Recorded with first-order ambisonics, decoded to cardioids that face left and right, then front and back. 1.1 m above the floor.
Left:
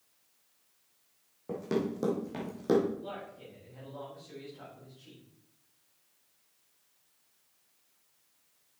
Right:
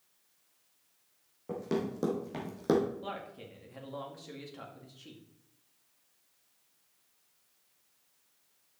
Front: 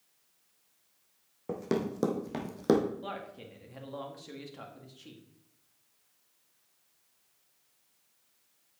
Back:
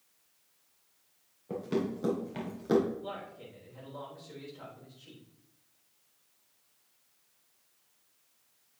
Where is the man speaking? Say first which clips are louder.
Right 1 dB, front 1 dB; 35° right, 2 m.